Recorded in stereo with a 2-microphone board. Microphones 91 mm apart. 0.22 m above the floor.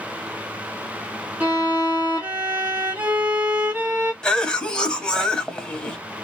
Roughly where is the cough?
Centre.